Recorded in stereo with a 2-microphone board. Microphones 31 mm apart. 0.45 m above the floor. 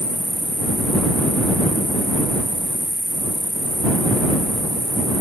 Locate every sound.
0.0 s an insect: 15° left (ahead or behind)